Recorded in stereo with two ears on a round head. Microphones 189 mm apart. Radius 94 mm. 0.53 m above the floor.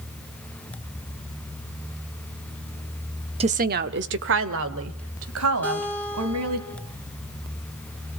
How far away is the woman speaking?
About 0.8 m.